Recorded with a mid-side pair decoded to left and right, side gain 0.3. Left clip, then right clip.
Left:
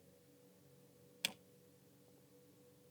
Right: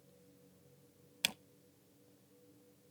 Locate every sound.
1.2 s a camera shutter: 60° right, 0.8 m